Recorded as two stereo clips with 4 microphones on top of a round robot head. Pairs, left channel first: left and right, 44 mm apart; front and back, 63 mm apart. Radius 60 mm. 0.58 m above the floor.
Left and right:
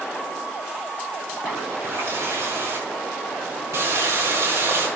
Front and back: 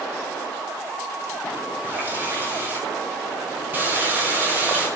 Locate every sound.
1.8 s a running tap: 115° right, 5 m